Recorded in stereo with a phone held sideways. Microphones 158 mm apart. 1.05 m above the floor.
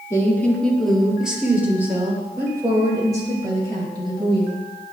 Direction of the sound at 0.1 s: 20° left (ahead or behind).